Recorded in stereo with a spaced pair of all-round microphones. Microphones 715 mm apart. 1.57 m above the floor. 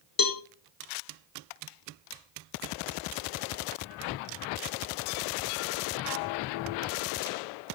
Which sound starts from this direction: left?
A cowbell, at 0.2 s.